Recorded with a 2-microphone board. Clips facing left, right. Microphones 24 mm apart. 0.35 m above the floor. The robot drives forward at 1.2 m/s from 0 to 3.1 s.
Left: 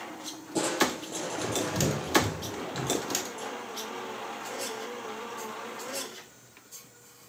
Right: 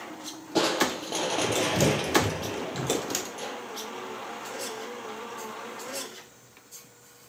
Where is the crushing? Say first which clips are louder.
Right 3 dB; 40° right (ahead or behind), 2.5 m; by 3.6 s 55° right (ahead or behind), 2.0 m.